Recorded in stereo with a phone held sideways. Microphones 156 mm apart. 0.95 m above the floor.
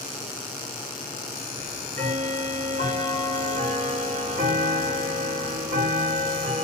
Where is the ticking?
45° right (ahead or behind), 1.2 m.